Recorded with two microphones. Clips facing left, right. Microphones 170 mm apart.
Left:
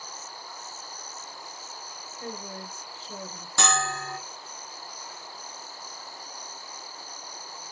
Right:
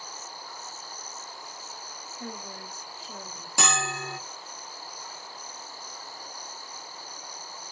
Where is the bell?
10° right (ahead or behind), 2 m.